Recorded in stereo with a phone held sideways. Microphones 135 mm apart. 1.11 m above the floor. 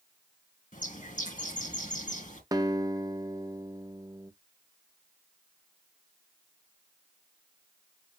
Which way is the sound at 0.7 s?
70° left (ahead or behind).